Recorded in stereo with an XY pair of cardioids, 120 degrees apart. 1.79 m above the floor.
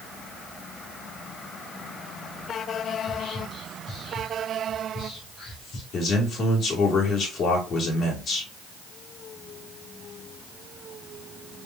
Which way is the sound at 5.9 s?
60° left.